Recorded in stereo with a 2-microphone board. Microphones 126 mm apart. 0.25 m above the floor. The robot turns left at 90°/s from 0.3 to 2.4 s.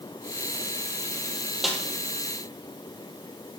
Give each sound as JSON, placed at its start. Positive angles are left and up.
{"t": 1.6, "sound": "a snare drum", "side_deg": 0, "distance_m": 2.0}